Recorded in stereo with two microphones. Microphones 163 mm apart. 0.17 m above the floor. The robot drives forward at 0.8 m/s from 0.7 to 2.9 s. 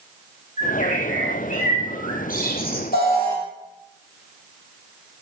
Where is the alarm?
65° left (ahead or behind), 6 m.